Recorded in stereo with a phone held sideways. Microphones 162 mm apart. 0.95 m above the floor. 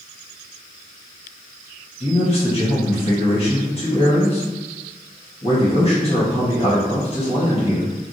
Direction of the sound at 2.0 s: 35° left (ahead or behind).